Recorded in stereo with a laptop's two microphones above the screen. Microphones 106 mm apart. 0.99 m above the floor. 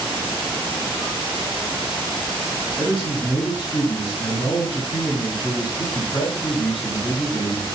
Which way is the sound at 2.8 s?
70° left (ahead or behind).